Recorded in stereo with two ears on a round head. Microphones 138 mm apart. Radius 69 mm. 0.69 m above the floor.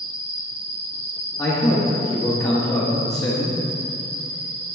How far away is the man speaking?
About 1.1 m.